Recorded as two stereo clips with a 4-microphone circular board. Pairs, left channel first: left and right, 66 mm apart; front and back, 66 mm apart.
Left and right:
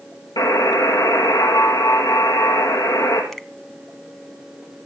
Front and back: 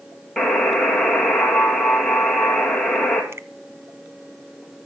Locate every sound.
0.4 s a buzzer: 85° left, 3 m
3.3 s a finger snap: 170° left, 1.2 m